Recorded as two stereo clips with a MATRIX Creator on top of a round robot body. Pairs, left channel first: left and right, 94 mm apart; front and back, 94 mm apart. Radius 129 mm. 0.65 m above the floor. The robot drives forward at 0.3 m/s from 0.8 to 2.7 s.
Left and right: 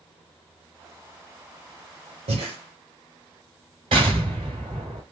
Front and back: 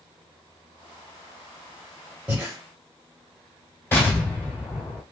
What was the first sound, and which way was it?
Breathing, 100° right.